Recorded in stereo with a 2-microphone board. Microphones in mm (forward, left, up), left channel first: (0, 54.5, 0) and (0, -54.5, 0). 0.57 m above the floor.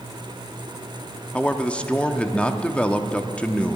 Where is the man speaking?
10° left (ahead or behind), 0.6 m.